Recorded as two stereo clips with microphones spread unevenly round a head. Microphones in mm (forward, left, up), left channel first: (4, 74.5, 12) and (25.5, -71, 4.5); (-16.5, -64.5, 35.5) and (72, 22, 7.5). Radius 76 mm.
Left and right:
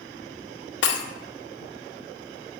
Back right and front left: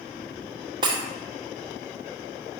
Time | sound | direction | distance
0.8 | breaking glass | 110° left | 0.9 m